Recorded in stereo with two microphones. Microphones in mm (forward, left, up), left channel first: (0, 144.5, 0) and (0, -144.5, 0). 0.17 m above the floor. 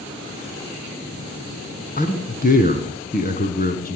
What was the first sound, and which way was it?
A man speaking, 30° left (ahead or behind).